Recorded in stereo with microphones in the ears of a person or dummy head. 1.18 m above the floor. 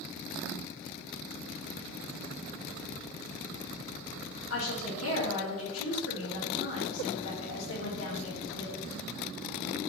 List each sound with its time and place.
4.5 s a woman speaking: 80° left, 4 m